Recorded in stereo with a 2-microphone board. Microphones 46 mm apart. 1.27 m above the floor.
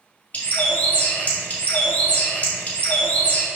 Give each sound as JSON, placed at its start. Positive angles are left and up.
{"t": 0.3, "sound": "a bird", "side_deg": 35, "distance_m": 2.0}